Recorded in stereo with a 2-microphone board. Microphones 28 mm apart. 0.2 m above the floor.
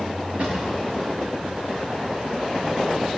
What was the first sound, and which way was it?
A drawer, 35° right (ahead or behind).